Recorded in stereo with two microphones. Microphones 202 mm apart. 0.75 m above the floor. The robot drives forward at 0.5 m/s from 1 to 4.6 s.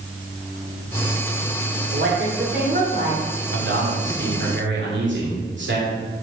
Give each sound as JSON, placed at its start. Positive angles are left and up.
{"t": 1.9, "sound": "a woman speaking", "side_deg": -60, "distance_m": 2.5}
{"t": 3.5, "sound": "a man speaking", "side_deg": -70, "distance_m": 2.0}